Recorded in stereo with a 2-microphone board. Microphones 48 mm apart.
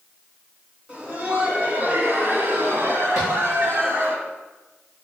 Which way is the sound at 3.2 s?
15° right (ahead or behind).